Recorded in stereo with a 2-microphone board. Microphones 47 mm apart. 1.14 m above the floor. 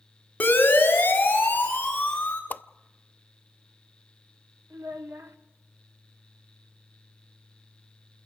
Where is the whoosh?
40° left (ahead or behind), 0.5 m.